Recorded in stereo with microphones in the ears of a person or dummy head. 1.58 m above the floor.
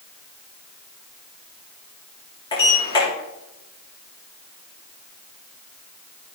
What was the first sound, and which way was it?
A sliding door, 30° left (ahead or behind).